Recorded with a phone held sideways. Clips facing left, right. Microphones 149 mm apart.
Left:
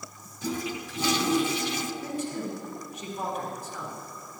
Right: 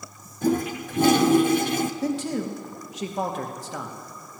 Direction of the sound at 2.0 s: 80° right.